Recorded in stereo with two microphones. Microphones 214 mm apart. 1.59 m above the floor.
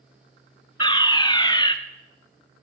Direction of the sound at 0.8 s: 20° left (ahead or behind).